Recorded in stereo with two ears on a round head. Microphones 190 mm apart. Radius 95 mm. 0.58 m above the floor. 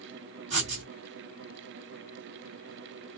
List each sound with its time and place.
0.5 s writing: 35° right (ahead or behind), 1.9 m